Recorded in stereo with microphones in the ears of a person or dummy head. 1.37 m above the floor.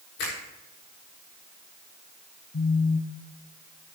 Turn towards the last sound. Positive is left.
turn(degrees=60)  # may be behind; listen again after turning